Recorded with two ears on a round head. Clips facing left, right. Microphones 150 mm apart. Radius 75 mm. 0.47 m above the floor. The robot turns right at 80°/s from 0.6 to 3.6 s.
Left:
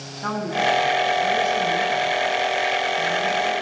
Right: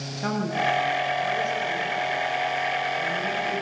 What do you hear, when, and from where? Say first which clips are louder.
0.2 s a woman speaking: left 2 dB; 25° right, 5.5 m; by 3.6 s 145° right, 5.5 m